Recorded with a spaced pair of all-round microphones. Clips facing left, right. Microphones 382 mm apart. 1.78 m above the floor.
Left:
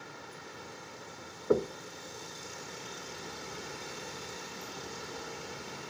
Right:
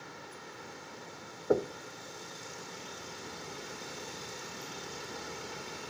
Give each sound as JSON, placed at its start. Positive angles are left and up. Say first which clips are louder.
{"t": 1.5, "sound": "knocking", "louder": "left 1 dB", "side_deg": 10, "distance_m": 0.6}